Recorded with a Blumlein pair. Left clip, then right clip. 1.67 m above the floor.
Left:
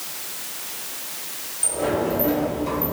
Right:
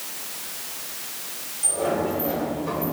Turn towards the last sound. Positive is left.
turn(degrees=65)